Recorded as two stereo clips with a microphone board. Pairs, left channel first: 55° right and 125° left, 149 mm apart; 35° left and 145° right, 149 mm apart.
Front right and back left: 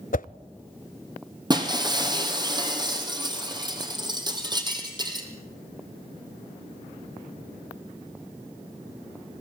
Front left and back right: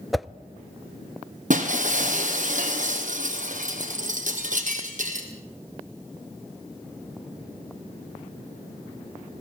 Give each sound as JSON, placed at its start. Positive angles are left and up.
{"t": 0.1, "sound": "a whoosh", "azimuth_deg": -55, "distance_m": 0.5}
{"t": 1.5, "sound": "breaking glass", "azimuth_deg": -175, "distance_m": 2.5}